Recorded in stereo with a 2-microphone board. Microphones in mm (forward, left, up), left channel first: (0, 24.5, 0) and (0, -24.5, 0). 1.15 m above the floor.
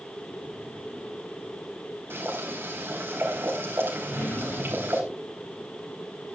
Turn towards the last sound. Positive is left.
turn(degrees=40)  # may be behind; listen again after turning